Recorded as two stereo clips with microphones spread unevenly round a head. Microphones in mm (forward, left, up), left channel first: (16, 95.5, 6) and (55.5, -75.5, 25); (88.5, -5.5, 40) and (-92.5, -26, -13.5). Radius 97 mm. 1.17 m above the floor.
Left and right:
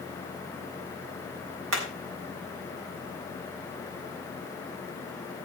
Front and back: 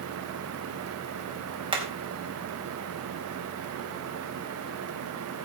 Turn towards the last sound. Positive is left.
turn(degrees=-110)